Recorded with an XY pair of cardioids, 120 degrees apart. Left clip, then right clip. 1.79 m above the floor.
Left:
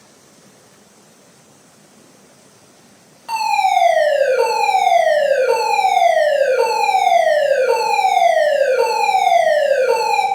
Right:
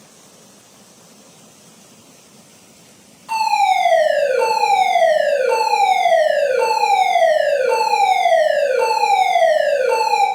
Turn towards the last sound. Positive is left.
turn(degrees=40)